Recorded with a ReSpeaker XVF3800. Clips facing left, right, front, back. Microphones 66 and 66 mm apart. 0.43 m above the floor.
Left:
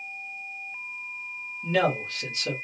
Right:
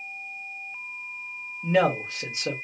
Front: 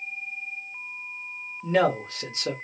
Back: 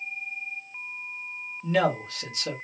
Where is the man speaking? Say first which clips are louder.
Right 2 dB, front 2 dB; 35° right, 1.0 m.